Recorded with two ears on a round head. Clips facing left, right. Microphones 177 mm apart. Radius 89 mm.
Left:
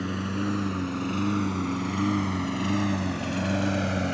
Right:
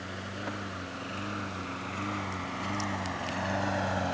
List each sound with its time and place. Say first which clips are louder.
0.0 s a lawn mower: left 10 dB; 70° left (ahead or behind); by 4.1 s 30° left (ahead or behind)